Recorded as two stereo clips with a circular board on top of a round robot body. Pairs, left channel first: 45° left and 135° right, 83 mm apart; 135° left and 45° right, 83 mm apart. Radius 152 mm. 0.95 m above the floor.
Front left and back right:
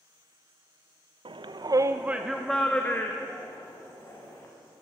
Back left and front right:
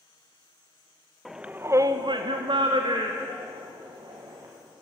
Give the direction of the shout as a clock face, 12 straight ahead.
4 o'clock.